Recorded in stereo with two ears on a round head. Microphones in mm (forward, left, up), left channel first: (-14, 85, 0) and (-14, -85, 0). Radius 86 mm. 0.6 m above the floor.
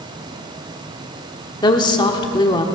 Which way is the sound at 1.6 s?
25° left (ahead or behind).